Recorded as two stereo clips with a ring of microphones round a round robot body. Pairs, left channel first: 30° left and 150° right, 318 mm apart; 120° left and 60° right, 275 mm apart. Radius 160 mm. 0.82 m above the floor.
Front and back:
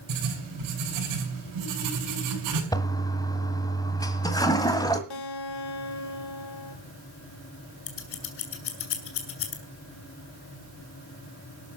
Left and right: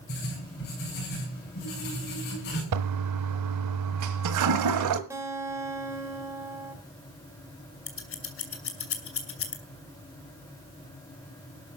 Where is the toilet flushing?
50° right, 1.5 m.